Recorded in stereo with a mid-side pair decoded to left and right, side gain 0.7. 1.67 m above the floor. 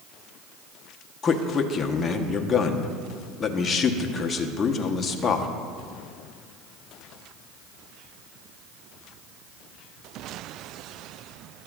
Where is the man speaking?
30° left, 1.1 m.